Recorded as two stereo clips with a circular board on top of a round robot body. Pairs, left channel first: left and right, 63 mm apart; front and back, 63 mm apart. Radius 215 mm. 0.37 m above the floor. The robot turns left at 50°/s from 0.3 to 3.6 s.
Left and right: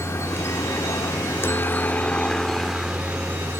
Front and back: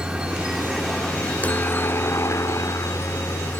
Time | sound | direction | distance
0.0 | a helicopter | 105° left | ?